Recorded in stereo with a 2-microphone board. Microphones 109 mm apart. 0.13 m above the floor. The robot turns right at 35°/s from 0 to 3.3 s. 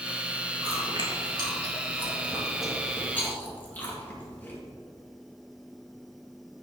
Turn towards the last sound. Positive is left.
turn(degrees=20)  # may be behind; listen again after turning